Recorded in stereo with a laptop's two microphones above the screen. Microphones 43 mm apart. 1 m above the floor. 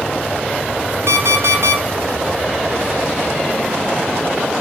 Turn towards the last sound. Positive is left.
turn(degrees=-70)  # may be behind; listen again after turning